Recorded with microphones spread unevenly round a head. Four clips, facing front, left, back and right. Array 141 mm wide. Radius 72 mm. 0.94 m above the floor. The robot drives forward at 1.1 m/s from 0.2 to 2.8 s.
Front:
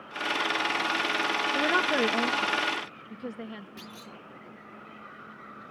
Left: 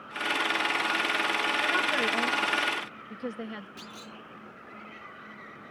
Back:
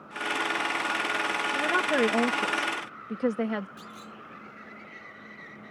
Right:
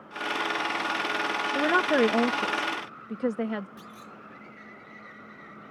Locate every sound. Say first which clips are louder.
1.6 s a woman speaking: right 10 dB, back 1 dB; 75° right; by 3.7 s 145° right
3.8 s a clunk: even, back 1 dB; 50° left